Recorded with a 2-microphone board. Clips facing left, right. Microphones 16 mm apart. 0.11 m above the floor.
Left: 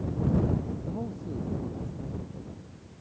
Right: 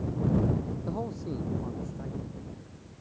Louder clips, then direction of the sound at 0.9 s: Right 1 dB; 40° right (ahead or behind).